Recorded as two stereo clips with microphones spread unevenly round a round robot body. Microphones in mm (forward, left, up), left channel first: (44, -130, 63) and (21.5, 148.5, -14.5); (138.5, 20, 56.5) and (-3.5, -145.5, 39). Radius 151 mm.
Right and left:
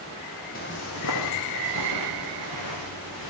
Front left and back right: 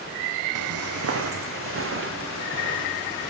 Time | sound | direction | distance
0.6 | footsteps | 140° right | 1.3 m